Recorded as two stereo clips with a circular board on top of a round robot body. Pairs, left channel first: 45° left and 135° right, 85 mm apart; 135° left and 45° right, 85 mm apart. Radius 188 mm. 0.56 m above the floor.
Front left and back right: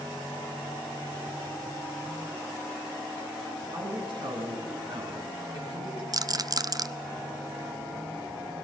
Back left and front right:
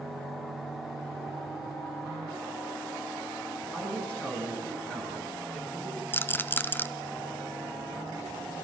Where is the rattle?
165° right, 0.8 m.